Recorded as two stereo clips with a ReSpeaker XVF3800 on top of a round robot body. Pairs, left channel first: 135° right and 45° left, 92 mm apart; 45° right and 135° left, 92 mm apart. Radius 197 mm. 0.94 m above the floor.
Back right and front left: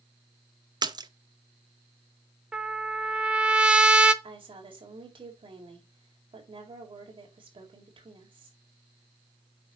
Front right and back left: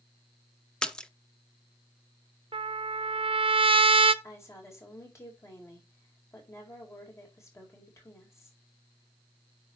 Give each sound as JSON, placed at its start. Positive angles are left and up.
{"t": 0.8, "sound": "a splash", "azimuth_deg": 35, "distance_m": 1.1}
{"t": 2.5, "sound": "a trumpet", "azimuth_deg": 125, "distance_m": 0.9}
{"t": 4.2, "sound": "a woman speaking", "azimuth_deg": 15, "distance_m": 5.0}